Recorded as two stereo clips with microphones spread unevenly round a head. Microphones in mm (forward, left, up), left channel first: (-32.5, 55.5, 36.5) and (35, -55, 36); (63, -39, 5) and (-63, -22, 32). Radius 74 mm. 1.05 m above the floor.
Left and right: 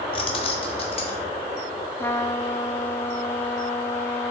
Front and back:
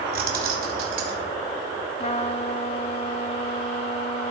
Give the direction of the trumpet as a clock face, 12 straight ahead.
10 o'clock.